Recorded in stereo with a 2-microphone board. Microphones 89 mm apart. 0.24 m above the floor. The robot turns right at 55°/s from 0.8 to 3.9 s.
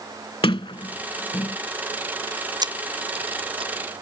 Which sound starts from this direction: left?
A sliding door, at 0.4 s.